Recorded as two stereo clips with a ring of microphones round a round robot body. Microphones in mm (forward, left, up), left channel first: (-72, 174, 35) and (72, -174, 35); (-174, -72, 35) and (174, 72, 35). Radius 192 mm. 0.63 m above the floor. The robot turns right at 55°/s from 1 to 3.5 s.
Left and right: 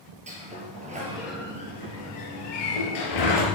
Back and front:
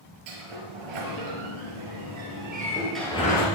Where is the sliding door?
5° left, 4 m; by 3.5 s 140° left, 4 m.